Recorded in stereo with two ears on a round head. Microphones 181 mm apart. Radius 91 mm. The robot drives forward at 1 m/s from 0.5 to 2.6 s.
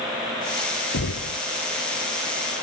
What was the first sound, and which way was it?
Knocking, 80° left.